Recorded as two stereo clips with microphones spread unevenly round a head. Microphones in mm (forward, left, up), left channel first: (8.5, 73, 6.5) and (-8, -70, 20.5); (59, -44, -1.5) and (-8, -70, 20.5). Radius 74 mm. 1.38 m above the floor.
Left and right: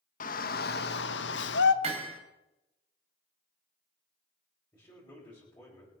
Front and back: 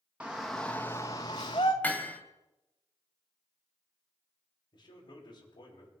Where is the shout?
120° left, 1.4 m; by 1.7 s 70° left, 1.3 m.